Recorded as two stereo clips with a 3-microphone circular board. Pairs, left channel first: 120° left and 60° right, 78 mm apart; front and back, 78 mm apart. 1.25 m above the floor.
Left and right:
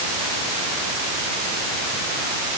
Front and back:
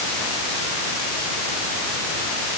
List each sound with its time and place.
Only background noise.